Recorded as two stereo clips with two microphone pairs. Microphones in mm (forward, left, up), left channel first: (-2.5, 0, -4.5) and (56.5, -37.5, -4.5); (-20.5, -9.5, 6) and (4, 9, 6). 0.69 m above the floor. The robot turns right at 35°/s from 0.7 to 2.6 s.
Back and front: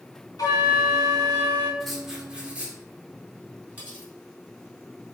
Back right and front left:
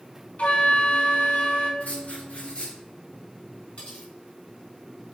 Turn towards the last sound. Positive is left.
turn(degrees=-95)